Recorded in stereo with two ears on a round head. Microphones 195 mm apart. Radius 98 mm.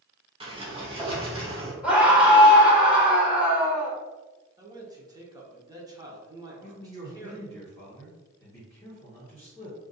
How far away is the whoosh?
I don't hear a whoosh.